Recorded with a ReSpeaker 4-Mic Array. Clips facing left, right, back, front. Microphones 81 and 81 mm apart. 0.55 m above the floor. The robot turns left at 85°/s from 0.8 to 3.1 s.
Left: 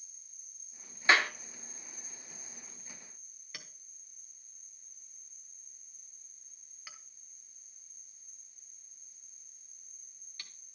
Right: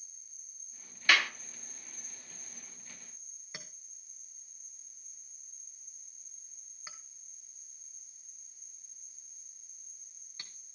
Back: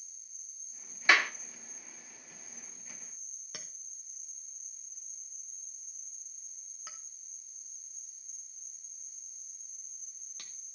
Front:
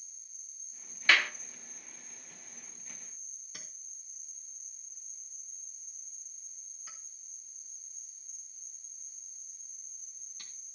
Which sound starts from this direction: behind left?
A clap, at 1.1 s.